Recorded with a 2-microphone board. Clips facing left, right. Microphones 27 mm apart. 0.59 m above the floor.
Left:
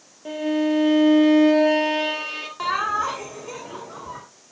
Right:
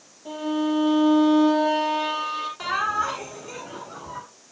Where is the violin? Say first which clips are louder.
Left 3 dB; 45° left (ahead or behind), 3.5 m.